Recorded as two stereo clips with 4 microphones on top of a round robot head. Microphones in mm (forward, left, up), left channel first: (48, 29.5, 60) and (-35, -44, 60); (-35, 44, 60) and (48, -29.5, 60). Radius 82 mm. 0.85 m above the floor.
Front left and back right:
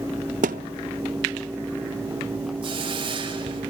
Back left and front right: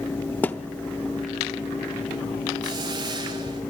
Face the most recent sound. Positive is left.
turn(degrees=-95)